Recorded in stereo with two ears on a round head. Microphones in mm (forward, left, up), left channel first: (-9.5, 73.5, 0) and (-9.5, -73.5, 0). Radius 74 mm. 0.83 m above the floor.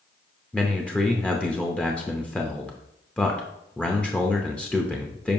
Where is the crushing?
No crushing in this recording.